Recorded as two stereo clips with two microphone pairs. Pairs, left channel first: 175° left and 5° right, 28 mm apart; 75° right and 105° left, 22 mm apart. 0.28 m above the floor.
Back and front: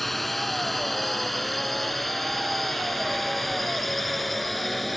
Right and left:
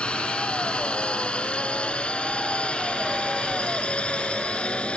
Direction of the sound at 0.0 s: 100° right.